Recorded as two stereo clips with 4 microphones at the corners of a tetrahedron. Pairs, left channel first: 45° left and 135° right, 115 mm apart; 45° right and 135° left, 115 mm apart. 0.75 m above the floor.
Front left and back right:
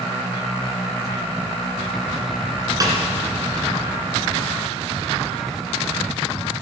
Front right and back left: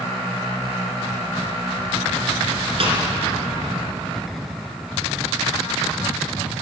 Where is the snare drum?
170° left, 2.5 m.